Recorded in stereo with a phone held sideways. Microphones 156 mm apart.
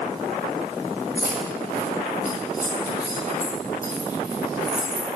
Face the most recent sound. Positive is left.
turn(degrees=65)  # may be behind; listen again after turning